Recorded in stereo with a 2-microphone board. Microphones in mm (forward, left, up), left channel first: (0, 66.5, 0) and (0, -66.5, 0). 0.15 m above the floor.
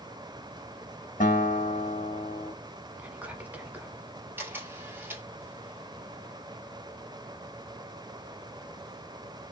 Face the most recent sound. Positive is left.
turn(degrees=-15)  # may be behind; listen again after turning